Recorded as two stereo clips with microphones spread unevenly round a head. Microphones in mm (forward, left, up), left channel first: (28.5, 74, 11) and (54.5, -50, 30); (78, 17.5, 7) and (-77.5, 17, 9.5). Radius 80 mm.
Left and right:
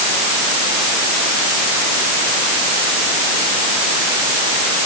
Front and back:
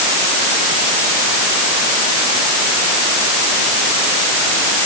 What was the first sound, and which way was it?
Only background noise.